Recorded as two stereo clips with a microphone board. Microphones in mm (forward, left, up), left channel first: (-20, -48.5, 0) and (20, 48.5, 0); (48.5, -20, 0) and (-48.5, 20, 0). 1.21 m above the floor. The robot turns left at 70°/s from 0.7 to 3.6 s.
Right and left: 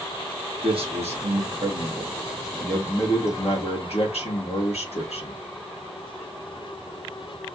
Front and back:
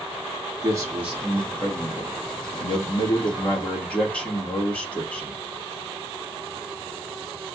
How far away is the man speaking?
About 1.8 m.